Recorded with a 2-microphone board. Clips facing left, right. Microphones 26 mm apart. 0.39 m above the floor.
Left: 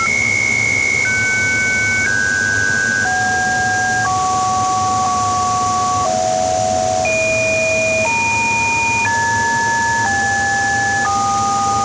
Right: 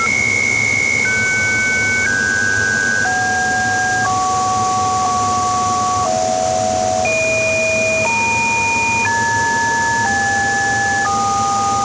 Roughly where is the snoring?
I don't hear snoring.